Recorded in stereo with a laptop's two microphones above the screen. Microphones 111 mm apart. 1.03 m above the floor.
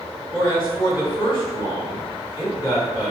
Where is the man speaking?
55° left (ahead or behind), 1.9 m.